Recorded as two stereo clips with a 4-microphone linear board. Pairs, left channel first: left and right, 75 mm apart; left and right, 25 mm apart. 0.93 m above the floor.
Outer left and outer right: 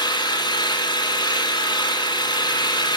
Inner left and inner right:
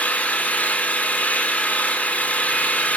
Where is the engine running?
80° left, 2 m.